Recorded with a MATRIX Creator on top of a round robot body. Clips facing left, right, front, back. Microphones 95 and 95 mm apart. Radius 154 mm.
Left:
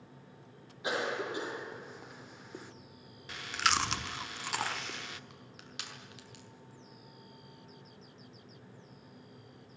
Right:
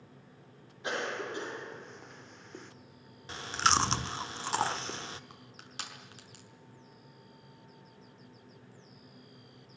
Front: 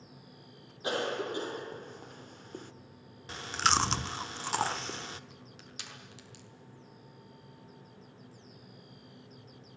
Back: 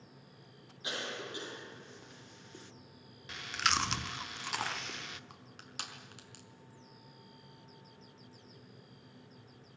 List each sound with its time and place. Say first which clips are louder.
0.8 s a cough: left 1 dB, front 9 dB; 5° left, 1.9 m
3.3 s chewing: right 3 dB, front 5 dB; 40° right, 1.5 m
5.3 s crushing: right 1 dB, even; 145° right, 5 m